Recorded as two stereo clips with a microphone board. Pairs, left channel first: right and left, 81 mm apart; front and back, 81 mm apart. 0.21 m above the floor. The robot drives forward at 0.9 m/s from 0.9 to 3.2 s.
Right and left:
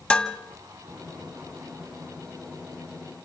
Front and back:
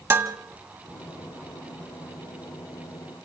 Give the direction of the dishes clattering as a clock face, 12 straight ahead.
5 o'clock.